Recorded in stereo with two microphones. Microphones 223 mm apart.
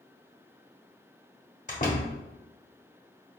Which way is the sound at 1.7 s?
40° left (ahead or behind).